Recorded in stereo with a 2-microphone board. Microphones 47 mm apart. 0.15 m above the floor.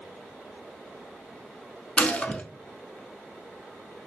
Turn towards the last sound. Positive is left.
turn(degrees=30)  # may be behind; listen again after turning